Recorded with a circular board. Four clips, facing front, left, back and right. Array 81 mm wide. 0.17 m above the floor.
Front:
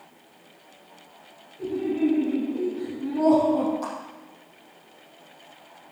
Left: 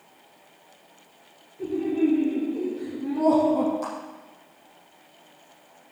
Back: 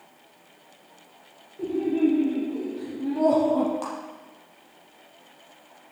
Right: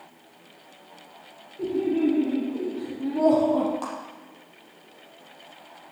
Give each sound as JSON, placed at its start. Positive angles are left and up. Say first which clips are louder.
{"t": 1.6, "sound": "laughter", "louder": "even, back 2 dB", "azimuth_deg": -135, "distance_m": 6.5}
{"t": 3.8, "sound": "a clap", "louder": "left 1 dB, front 1 dB", "azimuth_deg": -130, "distance_m": 5.0}